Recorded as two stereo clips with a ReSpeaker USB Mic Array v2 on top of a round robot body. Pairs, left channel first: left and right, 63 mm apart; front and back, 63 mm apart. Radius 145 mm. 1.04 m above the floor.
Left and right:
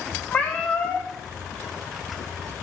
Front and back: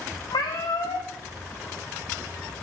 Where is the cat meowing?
20° left, 0.6 m.